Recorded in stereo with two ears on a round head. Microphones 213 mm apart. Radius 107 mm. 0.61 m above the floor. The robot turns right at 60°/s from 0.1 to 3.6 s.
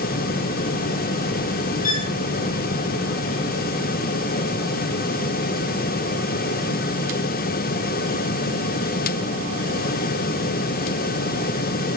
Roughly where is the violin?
Left.